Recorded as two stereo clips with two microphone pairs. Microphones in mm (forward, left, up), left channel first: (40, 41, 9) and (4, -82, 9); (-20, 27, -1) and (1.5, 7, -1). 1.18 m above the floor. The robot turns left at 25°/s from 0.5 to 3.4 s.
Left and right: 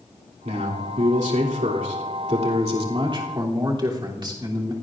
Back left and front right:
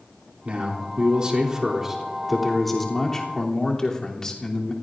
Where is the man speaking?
85° right, 3 m; by 4.7 s 160° right, 3 m.